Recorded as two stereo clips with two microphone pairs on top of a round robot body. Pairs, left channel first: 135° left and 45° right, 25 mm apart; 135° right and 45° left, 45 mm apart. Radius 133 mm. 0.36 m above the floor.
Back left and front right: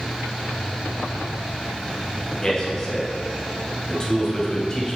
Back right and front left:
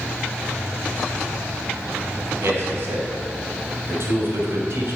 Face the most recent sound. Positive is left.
turn(degrees=70)